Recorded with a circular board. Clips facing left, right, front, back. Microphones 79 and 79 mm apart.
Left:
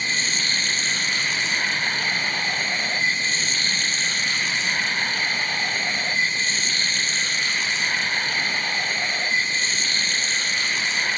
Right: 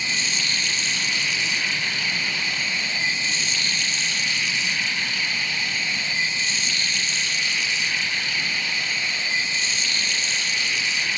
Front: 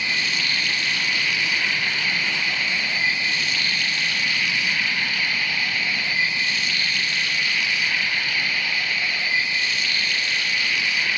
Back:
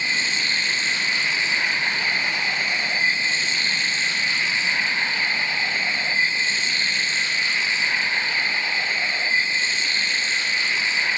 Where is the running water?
125° left, 0.8 m.